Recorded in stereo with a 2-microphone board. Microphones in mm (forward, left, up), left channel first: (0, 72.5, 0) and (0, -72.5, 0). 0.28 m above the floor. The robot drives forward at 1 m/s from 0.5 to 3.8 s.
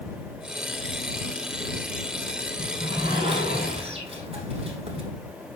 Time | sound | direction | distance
2.6 | a sliding door | 35° right (ahead or behind) | 5 m